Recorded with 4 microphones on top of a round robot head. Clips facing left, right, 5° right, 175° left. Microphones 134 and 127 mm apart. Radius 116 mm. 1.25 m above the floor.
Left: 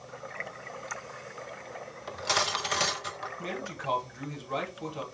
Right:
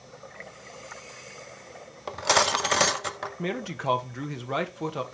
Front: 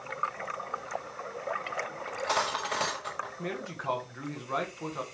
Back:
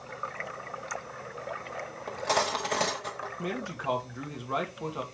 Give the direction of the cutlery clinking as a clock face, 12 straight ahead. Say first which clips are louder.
Right 7 dB, back 3 dB; 4 o'clock.